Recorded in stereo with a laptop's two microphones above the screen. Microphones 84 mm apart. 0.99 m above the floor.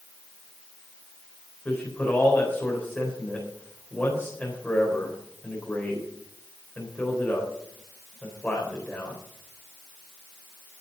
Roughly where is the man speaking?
Left.